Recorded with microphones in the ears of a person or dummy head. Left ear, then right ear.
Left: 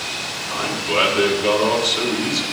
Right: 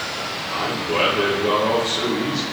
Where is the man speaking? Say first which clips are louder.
Left 2 dB; 55° left (ahead or behind), 3 m.